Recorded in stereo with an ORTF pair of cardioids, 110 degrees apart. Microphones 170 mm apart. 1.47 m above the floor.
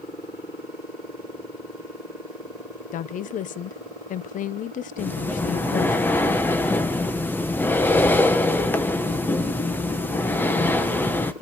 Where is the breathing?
10° left, 1.1 m.